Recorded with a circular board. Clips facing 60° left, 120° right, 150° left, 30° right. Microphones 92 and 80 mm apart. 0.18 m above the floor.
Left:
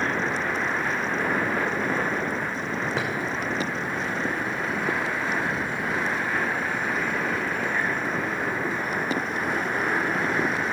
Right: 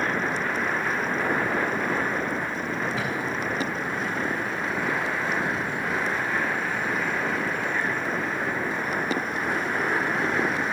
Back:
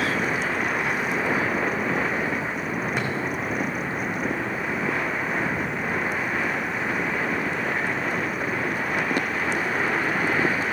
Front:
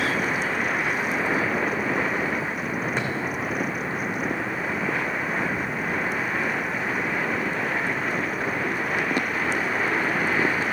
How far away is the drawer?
About 2.5 m.